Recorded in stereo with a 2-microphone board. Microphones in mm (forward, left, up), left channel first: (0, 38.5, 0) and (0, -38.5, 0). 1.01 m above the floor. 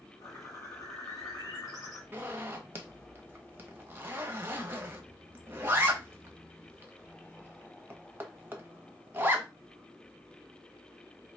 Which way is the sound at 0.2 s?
45° left (ahead or behind).